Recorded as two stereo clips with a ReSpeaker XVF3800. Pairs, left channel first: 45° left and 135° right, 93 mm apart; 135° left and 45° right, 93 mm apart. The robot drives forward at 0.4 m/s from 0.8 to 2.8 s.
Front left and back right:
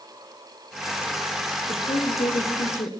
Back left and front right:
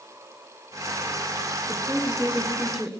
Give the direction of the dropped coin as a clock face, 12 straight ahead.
No dropped coin in this recording.